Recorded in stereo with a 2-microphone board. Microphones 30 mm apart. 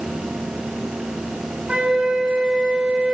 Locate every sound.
1.7 s a flute: 40° right (ahead or behind), 1.7 m